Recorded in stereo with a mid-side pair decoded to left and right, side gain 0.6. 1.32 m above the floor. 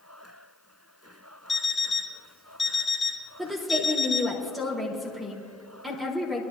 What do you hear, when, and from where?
1.5 s an alarm clock: 20° left, 1.9 m
3.4 s a woman speaking: 15° right, 3.5 m